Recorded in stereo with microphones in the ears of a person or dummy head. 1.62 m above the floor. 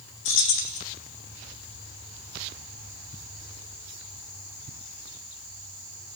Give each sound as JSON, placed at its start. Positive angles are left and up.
{"t": 0.2, "sound": "keys jangling", "side_deg": 65, "distance_m": 2.5}